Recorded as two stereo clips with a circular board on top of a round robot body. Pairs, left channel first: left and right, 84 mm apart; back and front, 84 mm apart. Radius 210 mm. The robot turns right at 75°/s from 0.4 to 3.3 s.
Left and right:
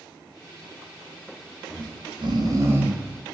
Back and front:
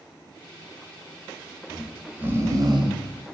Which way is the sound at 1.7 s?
110° right.